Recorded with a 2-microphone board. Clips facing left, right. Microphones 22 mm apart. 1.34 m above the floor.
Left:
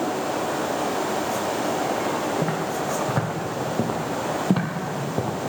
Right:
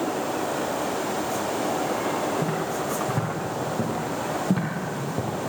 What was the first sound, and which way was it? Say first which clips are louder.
Footsteps: left 1 dB; 35° left (ahead or behind).